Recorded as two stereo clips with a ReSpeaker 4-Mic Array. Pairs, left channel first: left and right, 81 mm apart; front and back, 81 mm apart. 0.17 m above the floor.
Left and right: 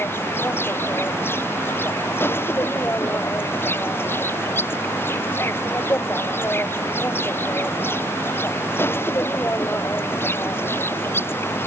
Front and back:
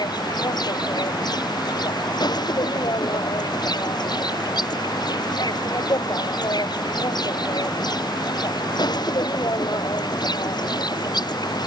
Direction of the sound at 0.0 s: 30° left.